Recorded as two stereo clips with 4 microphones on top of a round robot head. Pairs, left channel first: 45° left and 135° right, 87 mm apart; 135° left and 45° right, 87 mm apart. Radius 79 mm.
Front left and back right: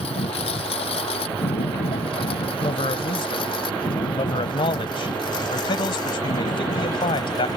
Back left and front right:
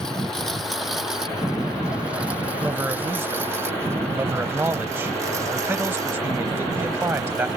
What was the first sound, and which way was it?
A lawn mower, 50° left.